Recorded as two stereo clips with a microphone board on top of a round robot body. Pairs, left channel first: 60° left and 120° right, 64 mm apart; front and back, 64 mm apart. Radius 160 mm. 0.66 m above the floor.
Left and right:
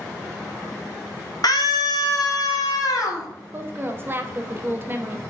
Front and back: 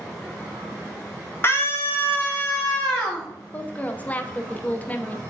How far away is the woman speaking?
About 0.9 m.